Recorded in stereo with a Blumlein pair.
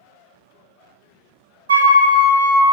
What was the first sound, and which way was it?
A flute, 65° right.